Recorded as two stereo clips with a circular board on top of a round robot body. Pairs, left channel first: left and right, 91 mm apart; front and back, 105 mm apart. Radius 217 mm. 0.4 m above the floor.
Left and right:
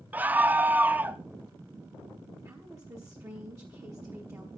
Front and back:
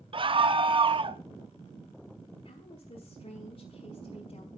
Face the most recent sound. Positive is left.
turn(degrees=-30)